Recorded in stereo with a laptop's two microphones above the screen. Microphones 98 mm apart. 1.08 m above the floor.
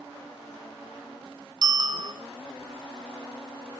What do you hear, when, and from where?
1.6 s a bicycle bell: 45° right (ahead or behind), 2 m